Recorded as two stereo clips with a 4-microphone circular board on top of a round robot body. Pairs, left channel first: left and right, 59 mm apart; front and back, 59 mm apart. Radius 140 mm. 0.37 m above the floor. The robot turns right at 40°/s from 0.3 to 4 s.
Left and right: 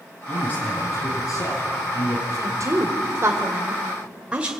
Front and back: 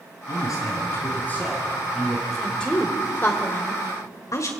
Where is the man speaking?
25° left, 8 m; by 2.2 s 100° left, 8 m.